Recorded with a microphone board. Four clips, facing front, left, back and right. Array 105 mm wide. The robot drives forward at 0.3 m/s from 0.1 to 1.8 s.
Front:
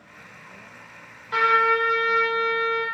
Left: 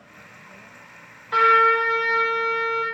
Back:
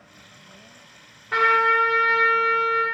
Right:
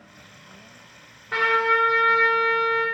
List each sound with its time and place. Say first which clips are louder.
1.3 s a trumpet: left 4 dB, back 1 dB; 145° right, 3 m; by 2.8 s 150° right, 3 m